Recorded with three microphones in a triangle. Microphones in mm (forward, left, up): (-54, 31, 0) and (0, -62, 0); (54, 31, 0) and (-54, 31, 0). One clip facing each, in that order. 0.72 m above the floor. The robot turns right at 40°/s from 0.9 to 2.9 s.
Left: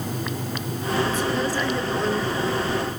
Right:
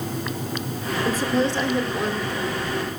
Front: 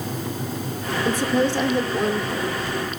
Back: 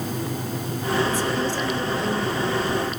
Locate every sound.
1.1 s a woman speaking: 20° right, 2.5 m; by 2.6 s 45° left, 2.5 m